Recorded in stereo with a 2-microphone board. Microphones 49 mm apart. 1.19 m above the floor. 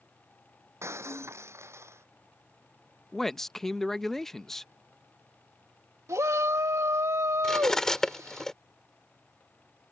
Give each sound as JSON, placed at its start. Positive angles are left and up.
{"t": 0.8, "sound": "breaking glass", "side_deg": -60}
{"t": 3.1, "sound": "a man speaking", "side_deg": 5}
{"t": 6.1, "sound": "a shout", "side_deg": -80}
{"t": 7.4, "sound": "cutlery clinking", "side_deg": 10}